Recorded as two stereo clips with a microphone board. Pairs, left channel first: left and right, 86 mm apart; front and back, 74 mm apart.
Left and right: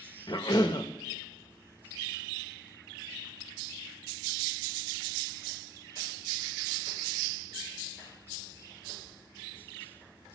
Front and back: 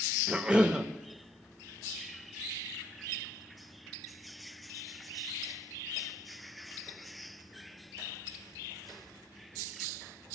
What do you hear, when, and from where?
0.3 s a cough: 105° left, 0.7 m